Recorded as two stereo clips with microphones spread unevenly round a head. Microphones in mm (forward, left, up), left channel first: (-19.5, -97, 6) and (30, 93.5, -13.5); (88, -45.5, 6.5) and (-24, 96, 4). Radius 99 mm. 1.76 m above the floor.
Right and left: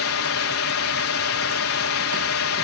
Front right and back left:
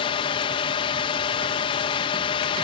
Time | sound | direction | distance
0.0 | a drone | 115° right | ?